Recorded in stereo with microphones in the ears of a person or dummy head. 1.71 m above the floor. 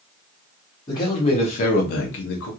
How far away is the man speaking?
About 1.1 m.